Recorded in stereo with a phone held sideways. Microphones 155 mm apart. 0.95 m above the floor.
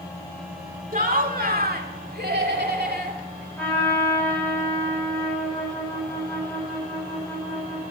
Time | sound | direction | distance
0.9 | laughter | 55° right (ahead or behind) | 2 m
3.6 | a trumpet | 10° left (ahead or behind) | 7.5 m